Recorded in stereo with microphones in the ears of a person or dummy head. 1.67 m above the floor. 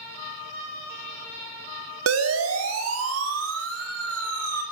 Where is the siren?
75° right (ahead or behind), 3 m; by 4.6 s 80° right, 6 m.